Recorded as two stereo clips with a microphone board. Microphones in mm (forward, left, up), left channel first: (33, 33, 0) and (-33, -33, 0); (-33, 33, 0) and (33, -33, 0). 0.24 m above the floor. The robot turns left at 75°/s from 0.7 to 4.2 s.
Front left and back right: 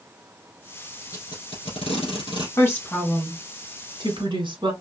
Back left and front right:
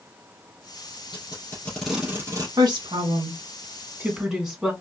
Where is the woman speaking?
10° right, 1.8 m; by 4.7 s 130° right, 1.8 m.